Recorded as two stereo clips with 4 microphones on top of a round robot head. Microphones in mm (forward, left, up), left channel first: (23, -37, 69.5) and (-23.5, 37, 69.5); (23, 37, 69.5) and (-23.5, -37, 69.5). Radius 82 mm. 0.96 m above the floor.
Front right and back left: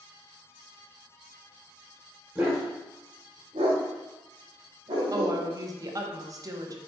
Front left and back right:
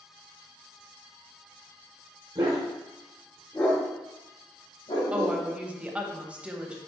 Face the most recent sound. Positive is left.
turn(degrees=160)